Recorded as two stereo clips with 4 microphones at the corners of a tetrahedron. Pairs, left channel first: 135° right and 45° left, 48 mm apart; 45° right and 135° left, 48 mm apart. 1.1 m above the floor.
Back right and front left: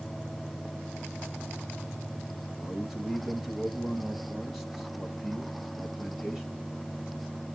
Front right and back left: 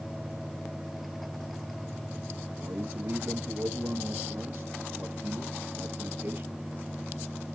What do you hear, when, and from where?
2.6 s a man speaking: 120° left, 1.6 m